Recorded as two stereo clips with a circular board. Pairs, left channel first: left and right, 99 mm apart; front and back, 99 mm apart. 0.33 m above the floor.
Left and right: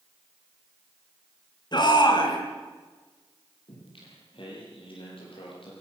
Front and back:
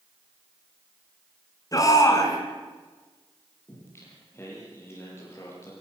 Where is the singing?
65° left, 7 m.